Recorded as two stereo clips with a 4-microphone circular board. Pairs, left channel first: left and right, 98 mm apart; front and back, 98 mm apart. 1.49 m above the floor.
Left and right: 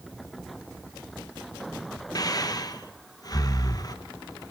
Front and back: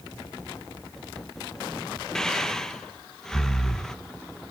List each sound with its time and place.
2.1 s breathing: 80° left, 0.7 m